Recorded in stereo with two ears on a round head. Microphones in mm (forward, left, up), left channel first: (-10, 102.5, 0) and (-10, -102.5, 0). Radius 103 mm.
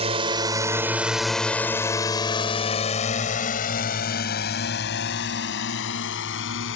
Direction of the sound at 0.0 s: 25° right (ahead or behind).